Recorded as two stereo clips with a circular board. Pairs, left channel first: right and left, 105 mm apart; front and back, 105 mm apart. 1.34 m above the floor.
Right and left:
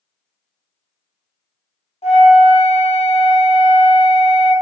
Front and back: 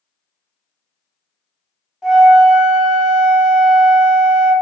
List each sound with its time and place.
2.0 s a flute: 95° right, 0.8 m